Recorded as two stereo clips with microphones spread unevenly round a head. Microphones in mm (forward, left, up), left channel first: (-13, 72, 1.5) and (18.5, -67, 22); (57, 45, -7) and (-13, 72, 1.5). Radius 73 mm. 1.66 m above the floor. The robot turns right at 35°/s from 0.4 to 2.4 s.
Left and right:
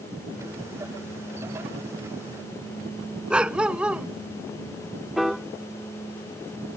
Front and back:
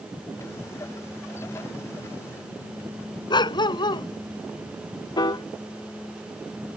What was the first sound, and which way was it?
A dog barking, 5° left.